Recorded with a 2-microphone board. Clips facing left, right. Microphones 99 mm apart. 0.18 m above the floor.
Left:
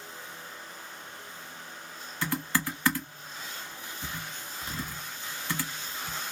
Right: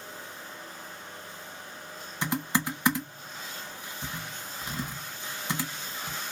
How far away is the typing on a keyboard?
About 0.9 m.